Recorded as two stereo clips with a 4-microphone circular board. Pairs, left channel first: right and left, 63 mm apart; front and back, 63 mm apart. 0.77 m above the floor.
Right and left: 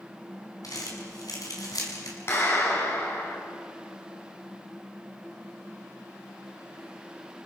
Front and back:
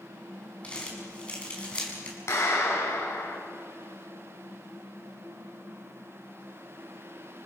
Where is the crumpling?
70° right, 5.5 m.